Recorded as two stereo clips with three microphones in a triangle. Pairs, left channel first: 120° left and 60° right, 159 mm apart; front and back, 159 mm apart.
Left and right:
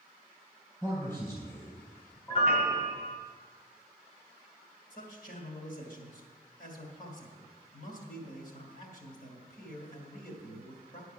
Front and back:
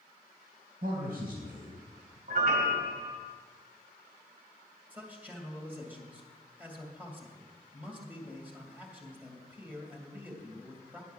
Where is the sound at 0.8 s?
165° right, 3.5 m.